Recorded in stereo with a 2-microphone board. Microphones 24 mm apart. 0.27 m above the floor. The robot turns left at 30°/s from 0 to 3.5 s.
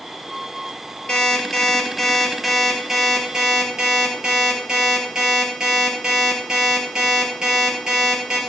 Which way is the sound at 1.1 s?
45° left.